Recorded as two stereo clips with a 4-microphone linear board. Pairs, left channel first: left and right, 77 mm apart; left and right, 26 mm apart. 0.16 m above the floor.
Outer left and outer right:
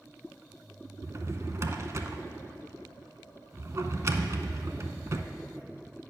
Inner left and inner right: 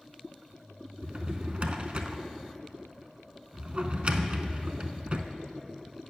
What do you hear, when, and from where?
1.0 s a drawer: 45° right (ahead or behind), 0.5 m